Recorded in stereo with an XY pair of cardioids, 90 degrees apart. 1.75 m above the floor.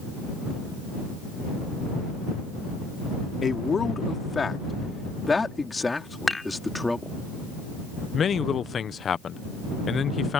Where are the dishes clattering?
20° left.